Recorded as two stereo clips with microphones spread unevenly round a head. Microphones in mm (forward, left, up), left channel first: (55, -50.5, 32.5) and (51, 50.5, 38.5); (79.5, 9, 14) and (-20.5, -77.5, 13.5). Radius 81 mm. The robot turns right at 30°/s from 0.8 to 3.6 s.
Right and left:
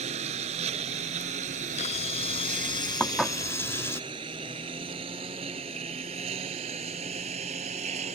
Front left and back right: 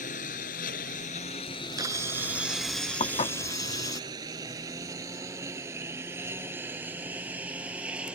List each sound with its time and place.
0.0 s a lawn mower: 85° left; by 8.2 s 135° left
1.5 s a camera shutter: 85° right; by 4.0 s 20° right
3.0 s dishes clattering: 5° right; by 3.4 s 5° left